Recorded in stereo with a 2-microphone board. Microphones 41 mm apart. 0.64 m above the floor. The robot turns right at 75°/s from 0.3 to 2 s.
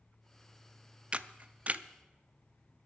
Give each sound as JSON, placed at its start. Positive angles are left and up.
{"t": 1.1, "sound": "a camera shutter", "side_deg": -30, "distance_m": 0.5}